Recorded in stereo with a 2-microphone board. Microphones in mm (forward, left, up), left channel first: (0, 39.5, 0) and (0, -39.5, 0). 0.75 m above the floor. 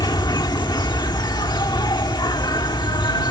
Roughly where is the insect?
Left.